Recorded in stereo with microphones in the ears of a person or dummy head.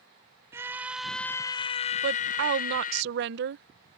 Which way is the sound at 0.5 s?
15° right (ahead or behind).